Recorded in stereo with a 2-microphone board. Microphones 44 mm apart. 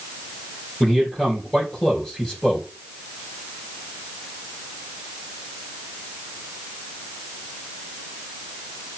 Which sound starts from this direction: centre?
A man speaking, at 0.8 s.